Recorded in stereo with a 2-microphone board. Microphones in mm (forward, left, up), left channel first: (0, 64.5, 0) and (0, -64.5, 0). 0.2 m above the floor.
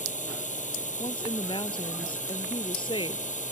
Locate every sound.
0.0 s a drone: 70° left (ahead or behind)
1.0 s a woman speaking: 40° left (ahead or behind)